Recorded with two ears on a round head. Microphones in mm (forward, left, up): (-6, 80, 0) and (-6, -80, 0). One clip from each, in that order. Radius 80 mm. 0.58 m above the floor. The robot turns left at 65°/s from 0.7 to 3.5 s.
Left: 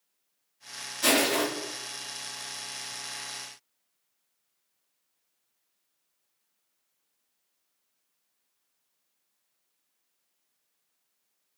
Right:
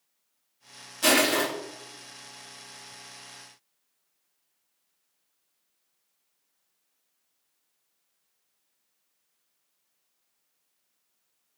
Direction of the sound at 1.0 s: Centre (ahead or behind).